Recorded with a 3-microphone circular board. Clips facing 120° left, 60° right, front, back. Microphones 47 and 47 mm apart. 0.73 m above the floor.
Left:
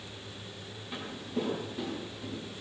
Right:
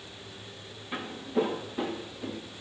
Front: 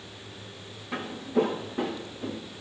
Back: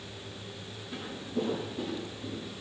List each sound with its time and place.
0.9 s footsteps: 15° left, 4.5 m; by 2.4 s straight ahead, 5 m